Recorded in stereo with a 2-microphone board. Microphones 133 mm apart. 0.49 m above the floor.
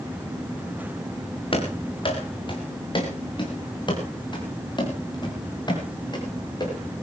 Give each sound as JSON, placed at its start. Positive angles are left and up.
{"t": 1.5, "sound": "running footsteps", "side_deg": 45, "distance_m": 4.0}